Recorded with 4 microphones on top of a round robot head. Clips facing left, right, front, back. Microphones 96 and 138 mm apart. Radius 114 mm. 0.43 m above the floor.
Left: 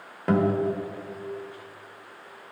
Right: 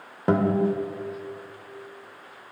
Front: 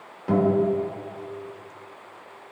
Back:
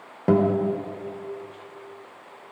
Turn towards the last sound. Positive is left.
turn(degrees=-155)